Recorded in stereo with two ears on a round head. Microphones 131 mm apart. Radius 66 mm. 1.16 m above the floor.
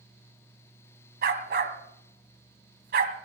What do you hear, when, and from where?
1.2 s a dog barking: 65° right (ahead or behind), 2 m